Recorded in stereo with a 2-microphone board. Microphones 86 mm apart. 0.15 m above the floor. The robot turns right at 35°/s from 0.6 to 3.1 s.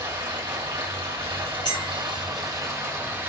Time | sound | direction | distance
0.0 | running water | 110° right | 2.5 m
1.6 | a clink | 55° left (ahead or behind) | 1.8 m